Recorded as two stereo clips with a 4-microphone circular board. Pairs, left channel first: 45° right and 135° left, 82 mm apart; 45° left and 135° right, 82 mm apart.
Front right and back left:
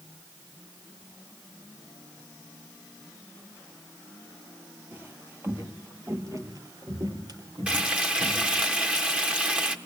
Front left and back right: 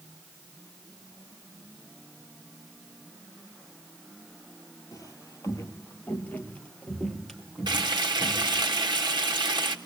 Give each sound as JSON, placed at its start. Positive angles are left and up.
{"t": 4.9, "sound": "footsteps", "azimuth_deg": 75, "distance_m": 3.0}
{"t": 7.7, "sound": "frying", "azimuth_deg": -150, "distance_m": 1.7}